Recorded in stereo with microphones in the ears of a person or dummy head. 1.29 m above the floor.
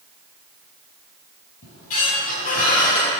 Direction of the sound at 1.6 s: 50° left (ahead or behind).